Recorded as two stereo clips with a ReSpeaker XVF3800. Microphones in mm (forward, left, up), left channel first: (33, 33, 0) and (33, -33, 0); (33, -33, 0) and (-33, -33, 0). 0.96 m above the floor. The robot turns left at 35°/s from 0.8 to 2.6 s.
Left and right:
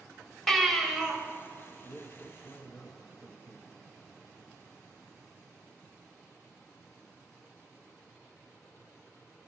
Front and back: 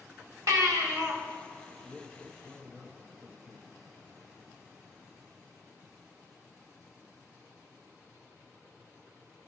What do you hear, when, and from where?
0.5 s a baby crying: 175° left, 1.4 m; by 1.2 s 160° left, 1.4 m
1.8 s a man speaking: 110° left, 1.0 m; by 3.8 s 80° left, 1.0 m